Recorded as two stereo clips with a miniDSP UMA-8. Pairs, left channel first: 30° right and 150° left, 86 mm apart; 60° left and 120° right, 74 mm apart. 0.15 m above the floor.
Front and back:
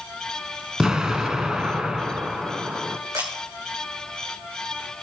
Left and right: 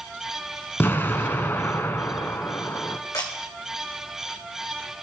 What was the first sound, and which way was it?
An explosion, 75° left.